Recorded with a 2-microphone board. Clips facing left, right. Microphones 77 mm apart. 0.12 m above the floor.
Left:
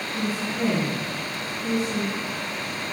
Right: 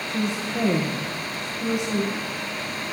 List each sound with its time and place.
0.1 s a woman speaking: 80° right, 6.5 m